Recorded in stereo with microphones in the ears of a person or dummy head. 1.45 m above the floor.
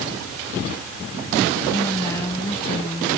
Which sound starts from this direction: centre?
A woman speaking, at 1.7 s.